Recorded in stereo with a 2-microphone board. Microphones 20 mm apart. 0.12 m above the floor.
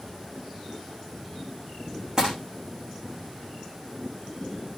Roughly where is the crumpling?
Right.